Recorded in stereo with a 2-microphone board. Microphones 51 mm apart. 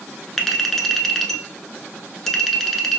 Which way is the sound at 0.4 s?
5° left (ahead or behind).